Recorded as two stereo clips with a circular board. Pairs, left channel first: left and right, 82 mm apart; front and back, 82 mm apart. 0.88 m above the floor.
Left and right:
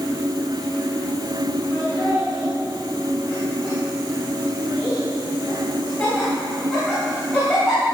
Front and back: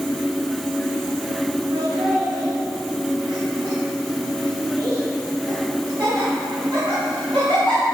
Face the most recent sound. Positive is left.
turn(degrees=165)